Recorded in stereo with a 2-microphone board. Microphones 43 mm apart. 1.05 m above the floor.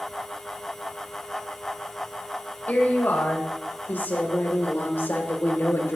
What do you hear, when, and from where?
2.7 s a woman speaking: 45° left (ahead or behind), 4 m; by 6.0 s 70° left (ahead or behind), 3 m